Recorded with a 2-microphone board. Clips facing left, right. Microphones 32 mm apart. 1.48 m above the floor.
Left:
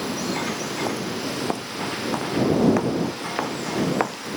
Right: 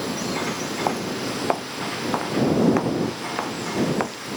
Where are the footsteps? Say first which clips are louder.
Right 2 dB; 30° right (ahead or behind); by 4.2 s 15° left (ahead or behind).